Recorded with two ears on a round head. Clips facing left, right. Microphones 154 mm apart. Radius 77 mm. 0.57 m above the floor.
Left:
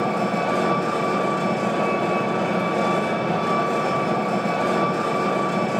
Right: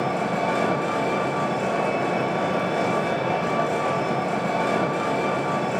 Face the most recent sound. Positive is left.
turn(degrees=-5)  # may be behind; listen again after turning